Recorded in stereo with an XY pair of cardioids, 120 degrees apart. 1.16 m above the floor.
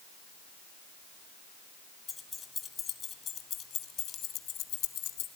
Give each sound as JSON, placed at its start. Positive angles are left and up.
{"t": 2.1, "sound": "keys jangling", "azimuth_deg": 30, "distance_m": 2.0}